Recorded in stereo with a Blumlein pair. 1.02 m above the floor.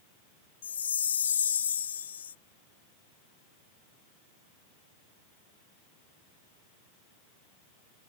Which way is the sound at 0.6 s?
70° left.